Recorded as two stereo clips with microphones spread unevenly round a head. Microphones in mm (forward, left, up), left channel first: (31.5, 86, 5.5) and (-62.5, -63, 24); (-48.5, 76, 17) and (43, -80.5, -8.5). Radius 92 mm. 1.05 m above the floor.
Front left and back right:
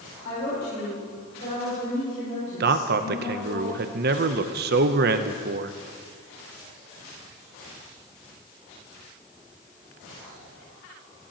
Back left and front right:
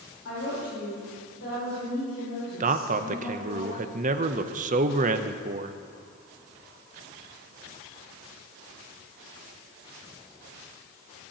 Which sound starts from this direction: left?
A woman speaking, at 0.2 s.